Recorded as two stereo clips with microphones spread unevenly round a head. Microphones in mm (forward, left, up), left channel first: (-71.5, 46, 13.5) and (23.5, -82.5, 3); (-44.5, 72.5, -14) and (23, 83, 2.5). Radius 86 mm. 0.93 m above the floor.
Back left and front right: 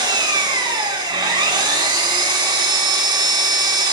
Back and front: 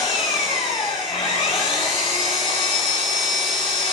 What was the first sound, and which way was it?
An engine running, 115° right.